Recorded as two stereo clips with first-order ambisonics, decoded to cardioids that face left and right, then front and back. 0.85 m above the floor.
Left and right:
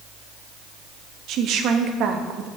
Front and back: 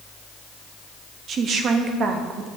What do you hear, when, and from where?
1.3 s a woman speaking: 125° right, 0.7 m